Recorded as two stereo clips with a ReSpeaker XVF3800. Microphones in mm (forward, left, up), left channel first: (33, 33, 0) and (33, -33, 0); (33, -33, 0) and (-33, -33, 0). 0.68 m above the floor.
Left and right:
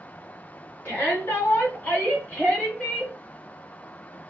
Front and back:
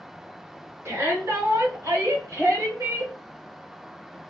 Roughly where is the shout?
Behind left.